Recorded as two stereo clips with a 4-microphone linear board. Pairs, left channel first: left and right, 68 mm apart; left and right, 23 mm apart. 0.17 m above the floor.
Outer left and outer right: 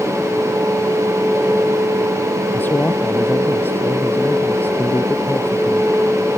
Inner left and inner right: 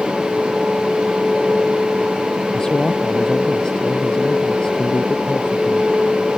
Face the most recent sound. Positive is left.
turn(degrees=30)  # may be behind; listen again after turning